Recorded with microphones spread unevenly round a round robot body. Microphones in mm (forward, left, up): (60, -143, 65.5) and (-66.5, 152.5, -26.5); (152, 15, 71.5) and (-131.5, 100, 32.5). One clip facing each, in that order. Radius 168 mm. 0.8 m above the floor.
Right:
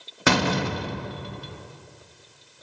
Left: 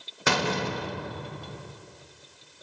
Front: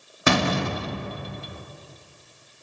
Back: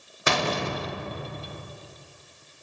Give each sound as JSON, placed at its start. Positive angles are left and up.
{"t": 0.3, "sound": "a door slam", "azimuth_deg": -30, "distance_m": 0.8}